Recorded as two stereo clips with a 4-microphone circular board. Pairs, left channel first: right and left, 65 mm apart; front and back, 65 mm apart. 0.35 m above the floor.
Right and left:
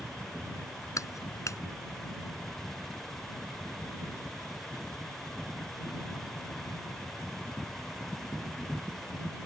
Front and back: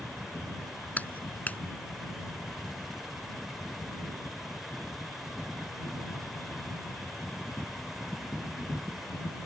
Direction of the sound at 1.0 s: 65° right.